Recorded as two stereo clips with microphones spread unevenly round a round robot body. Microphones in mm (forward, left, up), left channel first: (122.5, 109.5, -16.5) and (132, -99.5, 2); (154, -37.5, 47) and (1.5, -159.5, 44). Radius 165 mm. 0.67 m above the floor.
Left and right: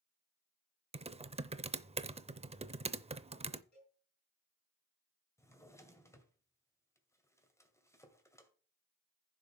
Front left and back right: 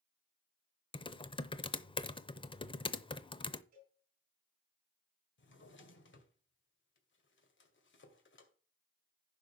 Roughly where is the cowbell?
Behind left.